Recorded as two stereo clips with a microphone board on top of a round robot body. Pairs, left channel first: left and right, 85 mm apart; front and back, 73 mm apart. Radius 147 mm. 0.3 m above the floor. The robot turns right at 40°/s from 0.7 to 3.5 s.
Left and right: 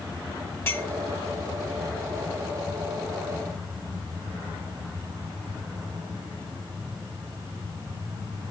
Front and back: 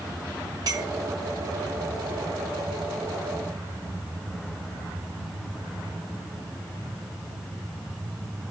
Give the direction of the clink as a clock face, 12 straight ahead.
7 o'clock.